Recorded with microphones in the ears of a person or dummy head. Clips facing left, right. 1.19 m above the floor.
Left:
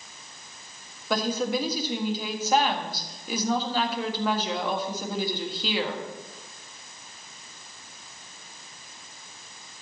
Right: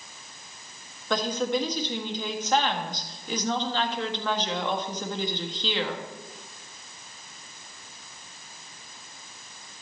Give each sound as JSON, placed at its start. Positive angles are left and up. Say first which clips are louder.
{"t": 1.1, "sound": "a woman speaking", "louder": "even", "side_deg": 5, "distance_m": 1.5}